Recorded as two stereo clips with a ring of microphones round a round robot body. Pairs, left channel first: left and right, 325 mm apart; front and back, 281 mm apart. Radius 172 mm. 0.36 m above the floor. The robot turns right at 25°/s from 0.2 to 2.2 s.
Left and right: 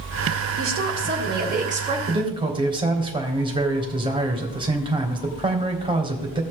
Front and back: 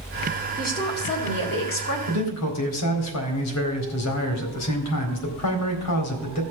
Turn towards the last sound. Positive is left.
turn(degrees=-15)